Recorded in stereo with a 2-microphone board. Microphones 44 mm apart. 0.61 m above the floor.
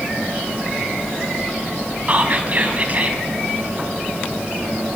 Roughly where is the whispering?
Right.